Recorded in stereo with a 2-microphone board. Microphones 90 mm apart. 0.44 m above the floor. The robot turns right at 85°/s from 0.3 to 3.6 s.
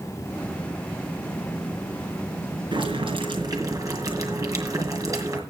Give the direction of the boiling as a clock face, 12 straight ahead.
4 o'clock.